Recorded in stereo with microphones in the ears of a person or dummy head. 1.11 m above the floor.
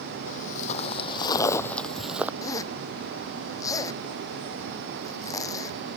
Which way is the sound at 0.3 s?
50° left (ahead or behind).